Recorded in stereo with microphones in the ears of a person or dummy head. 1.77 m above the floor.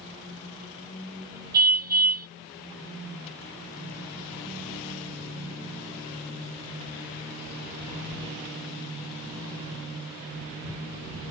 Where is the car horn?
55° right (ahead or behind).